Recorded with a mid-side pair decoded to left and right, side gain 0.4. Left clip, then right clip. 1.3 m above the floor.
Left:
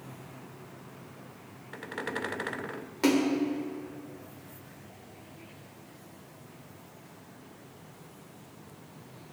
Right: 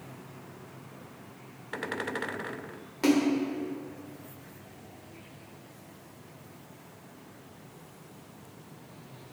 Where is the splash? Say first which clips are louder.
Right 1 dB; 15° left, 1.2 m.